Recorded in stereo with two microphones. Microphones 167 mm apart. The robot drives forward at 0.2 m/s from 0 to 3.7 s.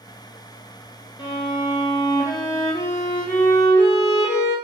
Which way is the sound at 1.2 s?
30° left (ahead or behind).